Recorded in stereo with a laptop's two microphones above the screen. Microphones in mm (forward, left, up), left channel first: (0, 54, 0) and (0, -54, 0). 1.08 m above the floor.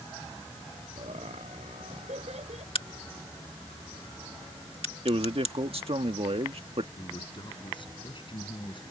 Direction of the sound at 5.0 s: 60° right (ahead or behind).